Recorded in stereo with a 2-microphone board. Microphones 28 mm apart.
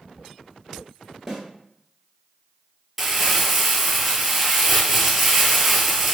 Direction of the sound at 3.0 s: 5° right (ahead or behind).